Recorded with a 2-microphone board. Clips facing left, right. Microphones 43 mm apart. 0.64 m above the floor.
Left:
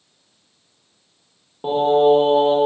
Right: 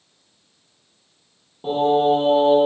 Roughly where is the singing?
Left.